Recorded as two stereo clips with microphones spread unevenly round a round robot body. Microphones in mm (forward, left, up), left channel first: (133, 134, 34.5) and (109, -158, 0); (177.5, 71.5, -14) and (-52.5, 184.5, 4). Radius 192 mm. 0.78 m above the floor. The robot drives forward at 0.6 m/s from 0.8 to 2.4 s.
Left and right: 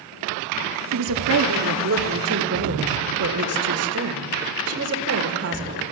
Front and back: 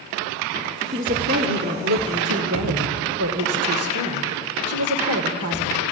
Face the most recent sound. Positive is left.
turn(degrees=-150)